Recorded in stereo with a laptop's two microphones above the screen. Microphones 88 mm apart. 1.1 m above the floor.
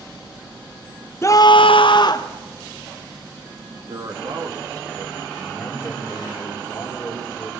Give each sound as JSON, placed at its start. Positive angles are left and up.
{"t": 1.2, "sound": "a scream", "side_deg": 30, "distance_m": 0.6}
{"t": 3.9, "sound": "a man speaking", "side_deg": -50, "distance_m": 2.5}
{"t": 5.4, "sound": "a man speaking", "side_deg": 25, "distance_m": 4.0}